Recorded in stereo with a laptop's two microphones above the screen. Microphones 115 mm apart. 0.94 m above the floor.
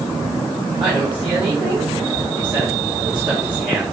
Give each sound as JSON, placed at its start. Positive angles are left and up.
{"t": 0.8, "sound": "a woman speaking", "side_deg": -5, "distance_m": 3.5}